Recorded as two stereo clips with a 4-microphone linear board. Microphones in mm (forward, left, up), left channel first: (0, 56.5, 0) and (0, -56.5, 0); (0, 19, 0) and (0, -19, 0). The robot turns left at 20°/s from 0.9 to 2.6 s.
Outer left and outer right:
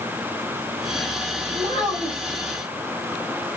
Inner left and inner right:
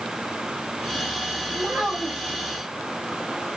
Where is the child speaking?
80° right, 1.6 m; by 2.4 s 75° right (ahead or behind), 1.6 m.